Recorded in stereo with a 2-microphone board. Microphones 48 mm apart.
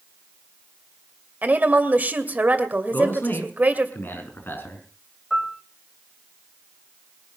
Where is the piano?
10° right (ahead or behind), 2.5 m.